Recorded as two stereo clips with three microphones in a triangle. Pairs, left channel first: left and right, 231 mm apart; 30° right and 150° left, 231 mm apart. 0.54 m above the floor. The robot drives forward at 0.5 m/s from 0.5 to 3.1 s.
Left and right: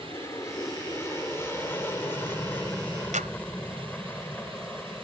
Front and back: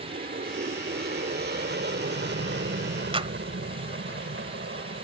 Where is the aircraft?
160° left; by 5.0 s 175° left.